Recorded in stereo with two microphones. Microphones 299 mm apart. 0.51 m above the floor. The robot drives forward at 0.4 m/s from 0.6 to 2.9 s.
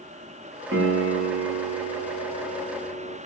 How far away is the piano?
About 0.7 m.